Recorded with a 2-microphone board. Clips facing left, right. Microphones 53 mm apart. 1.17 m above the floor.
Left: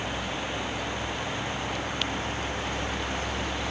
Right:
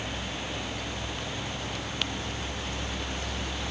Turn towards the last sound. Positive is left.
No sound to turn to.